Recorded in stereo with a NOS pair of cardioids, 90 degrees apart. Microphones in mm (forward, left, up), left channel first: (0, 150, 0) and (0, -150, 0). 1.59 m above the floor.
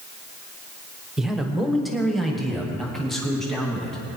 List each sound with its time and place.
1.2 s a man speaking: straight ahead, 1.3 m